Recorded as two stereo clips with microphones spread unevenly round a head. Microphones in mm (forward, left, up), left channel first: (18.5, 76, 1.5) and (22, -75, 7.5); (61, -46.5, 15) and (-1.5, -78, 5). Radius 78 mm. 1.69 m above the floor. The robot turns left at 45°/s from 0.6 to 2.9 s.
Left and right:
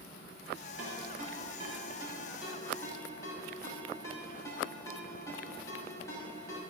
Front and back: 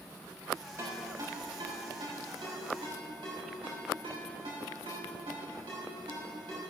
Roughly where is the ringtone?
Right.